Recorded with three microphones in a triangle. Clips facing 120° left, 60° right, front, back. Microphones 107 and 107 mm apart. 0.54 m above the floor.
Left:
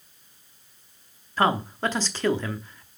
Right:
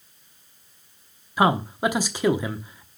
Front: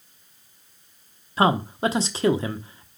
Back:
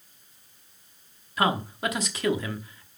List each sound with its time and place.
1.4 s a man speaking: 5° left, 0.8 m